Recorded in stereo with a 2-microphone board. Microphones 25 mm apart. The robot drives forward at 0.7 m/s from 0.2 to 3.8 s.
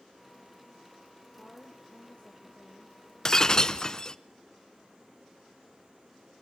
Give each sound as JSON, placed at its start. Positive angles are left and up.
{"t": 1.4, "sound": "a woman speaking", "side_deg": 45, "distance_m": 3.5}
{"t": 3.2, "sound": "breaking glass", "side_deg": 25, "distance_m": 0.8}